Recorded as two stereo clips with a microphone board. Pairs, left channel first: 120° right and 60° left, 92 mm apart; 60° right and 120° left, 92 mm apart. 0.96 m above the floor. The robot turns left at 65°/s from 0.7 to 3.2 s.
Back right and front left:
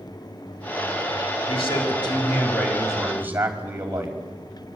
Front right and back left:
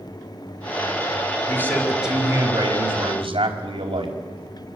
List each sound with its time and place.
1.5 s a man speaking: 120° right, 5 m; by 4.2 s 130° left, 5 m